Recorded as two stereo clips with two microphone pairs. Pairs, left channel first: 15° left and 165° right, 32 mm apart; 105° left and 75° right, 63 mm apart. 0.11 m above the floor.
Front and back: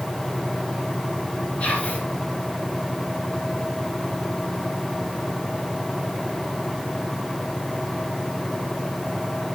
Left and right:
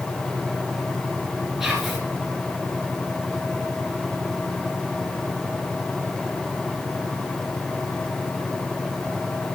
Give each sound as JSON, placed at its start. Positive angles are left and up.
{"t": 1.6, "sound": "whispering", "azimuth_deg": 5, "distance_m": 2.0}